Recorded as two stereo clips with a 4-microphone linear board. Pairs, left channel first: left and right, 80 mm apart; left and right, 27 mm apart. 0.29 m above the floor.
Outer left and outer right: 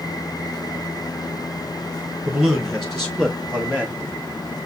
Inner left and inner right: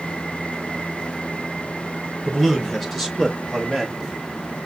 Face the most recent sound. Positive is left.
turn(degrees=20)  # may be behind; listen again after turning